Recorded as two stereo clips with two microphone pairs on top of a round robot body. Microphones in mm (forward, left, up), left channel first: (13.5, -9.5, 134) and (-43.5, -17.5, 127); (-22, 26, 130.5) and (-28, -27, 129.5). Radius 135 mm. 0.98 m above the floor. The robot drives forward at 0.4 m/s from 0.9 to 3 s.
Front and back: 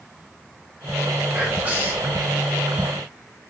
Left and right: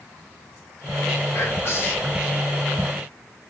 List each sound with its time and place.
1.3 s whispering: 120° left, 1.0 m; by 2.2 s 135° left, 1.2 m